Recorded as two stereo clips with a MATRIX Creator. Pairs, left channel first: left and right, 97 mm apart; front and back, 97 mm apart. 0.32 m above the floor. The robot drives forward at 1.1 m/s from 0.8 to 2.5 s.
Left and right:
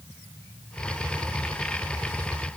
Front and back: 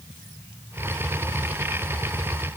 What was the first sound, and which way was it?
Only background noise.